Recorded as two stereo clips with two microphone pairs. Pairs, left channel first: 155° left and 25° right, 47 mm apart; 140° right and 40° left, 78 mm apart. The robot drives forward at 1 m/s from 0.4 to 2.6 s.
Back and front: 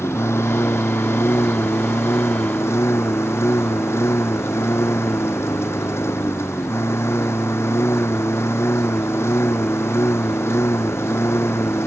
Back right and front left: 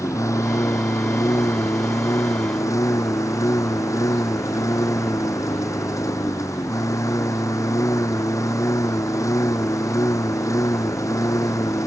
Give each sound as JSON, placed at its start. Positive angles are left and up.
{"t": 0.0, "sound": "a lawn mower", "azimuth_deg": 175}